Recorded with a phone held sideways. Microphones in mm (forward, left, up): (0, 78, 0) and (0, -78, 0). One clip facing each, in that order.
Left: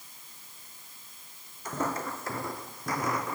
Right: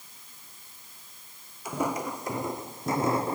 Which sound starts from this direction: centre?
Footsteps, at 1.6 s.